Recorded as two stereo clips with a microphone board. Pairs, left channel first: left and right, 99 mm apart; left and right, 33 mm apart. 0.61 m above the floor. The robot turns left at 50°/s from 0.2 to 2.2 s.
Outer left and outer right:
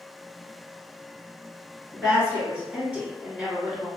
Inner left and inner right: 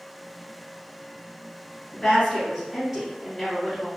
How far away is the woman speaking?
About 1.6 m.